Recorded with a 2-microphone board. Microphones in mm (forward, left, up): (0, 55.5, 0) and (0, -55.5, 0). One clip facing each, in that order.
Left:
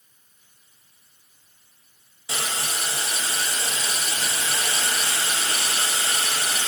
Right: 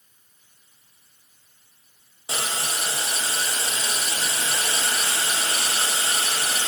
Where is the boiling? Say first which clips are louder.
Right 1 dB; 30° right (ahead or behind), 0.5 m.